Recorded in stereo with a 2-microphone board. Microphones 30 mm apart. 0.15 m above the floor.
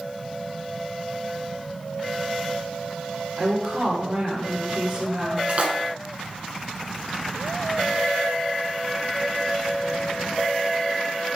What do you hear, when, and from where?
3.4 s a woman speaking: 45° right (ahead or behind), 3.5 m
5.5 s a splash: 45° right (ahead or behind), 1.6 m